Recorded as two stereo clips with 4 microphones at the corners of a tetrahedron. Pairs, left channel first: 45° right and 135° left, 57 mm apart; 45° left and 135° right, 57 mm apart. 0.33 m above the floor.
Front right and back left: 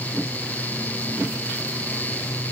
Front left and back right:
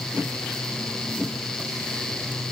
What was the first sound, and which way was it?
Only background noise.